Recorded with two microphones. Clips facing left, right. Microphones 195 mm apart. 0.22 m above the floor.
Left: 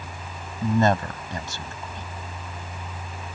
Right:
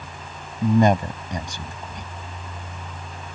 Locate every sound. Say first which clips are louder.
0.6 s a man speaking: right 3 dB; 15° right (ahead or behind)